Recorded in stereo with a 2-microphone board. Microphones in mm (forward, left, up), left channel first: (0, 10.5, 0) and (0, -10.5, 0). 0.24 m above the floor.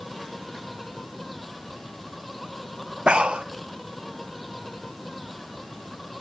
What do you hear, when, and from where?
0.0 s an insect: 5° left (ahead or behind)
3.1 s breathing: 75° right (ahead or behind)